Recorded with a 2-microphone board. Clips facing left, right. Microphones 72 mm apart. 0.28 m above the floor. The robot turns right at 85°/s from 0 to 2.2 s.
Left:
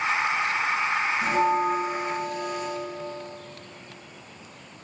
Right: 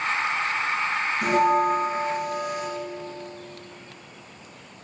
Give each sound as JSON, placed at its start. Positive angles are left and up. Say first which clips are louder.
{"t": 1.2, "sound": "a bell", "louder": "right 4 dB", "azimuth_deg": -95, "distance_m": 2.5}